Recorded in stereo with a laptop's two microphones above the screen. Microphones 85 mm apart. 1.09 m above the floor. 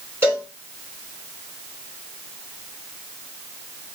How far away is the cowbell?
About 4 m.